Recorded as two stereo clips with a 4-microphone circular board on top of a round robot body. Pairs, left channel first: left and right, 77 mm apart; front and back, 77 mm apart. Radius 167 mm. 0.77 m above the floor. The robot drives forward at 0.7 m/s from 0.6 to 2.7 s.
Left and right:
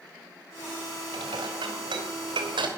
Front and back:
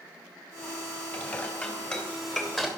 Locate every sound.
1.1 s dishes clattering: 65° right, 3 m; by 2.7 s 85° right, 3 m